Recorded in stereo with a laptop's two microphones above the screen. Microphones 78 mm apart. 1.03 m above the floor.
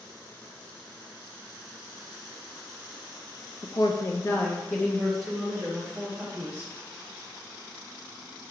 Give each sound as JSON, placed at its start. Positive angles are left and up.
{"t": 3.6, "sound": "a woman speaking", "side_deg": 60, "distance_m": 0.6}